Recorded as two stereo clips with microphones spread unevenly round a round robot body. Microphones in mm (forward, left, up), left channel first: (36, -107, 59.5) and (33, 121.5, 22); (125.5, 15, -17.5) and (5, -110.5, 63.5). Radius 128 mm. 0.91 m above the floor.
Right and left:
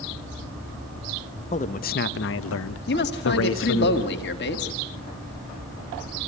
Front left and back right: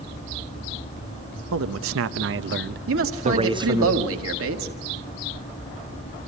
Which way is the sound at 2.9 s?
140° right.